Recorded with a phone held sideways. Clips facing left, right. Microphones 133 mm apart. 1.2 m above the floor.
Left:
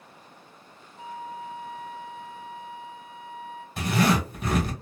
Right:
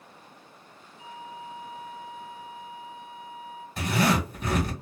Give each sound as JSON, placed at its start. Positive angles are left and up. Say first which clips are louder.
{"t": 1.0, "sound": "a flute", "louder": "left 4 dB", "side_deg": 45, "distance_m": 0.9}
{"t": 3.8, "sound": "a zipper", "louder": "left 1 dB", "side_deg": 5, "distance_m": 1.4}